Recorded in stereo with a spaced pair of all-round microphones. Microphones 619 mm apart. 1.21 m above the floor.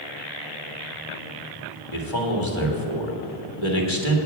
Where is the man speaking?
50° left (ahead or behind), 1.8 m.